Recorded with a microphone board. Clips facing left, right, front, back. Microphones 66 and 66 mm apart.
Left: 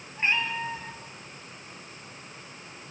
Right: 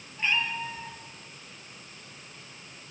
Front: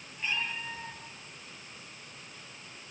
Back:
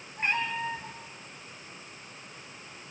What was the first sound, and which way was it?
A cat meowing, 145° left.